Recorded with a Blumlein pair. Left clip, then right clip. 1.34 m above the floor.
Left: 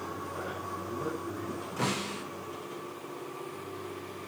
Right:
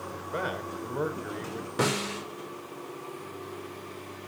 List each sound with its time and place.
0.1 s a man speaking: 50° right, 4.5 m
1.8 s a snare drum: 25° right, 6 m